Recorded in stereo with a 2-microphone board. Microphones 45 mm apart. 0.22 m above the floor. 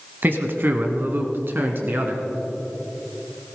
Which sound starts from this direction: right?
A man speaking, at 0.2 s.